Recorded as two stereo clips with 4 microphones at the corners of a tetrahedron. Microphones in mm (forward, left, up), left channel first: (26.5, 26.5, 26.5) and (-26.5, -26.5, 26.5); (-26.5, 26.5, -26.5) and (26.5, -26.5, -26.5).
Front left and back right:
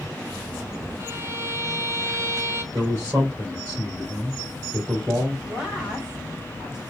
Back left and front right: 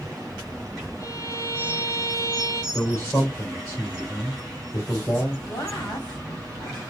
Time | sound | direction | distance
1.0 | a violin | 175° left | 3 m
2.7 | a man speaking | 170° left | 2 m
5.5 | a woman speaking | 150° left | 2.5 m